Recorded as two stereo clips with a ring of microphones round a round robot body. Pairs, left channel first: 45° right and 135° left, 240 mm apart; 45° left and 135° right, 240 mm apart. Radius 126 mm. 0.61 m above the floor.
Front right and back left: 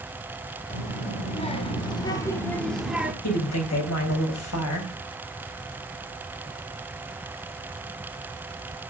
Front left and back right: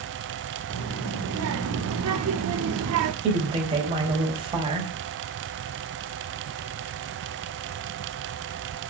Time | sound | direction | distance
0.7 | a child speaking | 105° right | 1.9 m
3.2 | a woman speaking | 65° right | 4.5 m